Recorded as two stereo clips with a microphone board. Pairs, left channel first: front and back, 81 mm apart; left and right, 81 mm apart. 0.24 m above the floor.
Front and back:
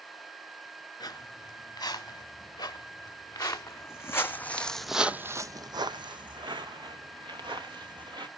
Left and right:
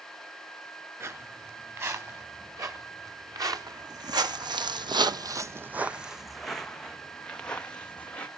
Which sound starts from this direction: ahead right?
Footsteps, at 1.0 s.